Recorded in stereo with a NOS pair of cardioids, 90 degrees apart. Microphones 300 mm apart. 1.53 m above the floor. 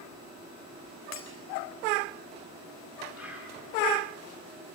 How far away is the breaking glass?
About 3.5 m.